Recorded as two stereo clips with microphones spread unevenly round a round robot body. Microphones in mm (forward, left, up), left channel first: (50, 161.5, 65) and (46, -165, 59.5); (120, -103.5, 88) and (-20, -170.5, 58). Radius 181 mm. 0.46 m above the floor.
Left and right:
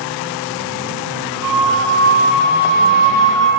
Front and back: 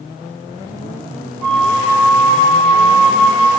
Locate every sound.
1.4 s a flute: 50° right, 1.5 m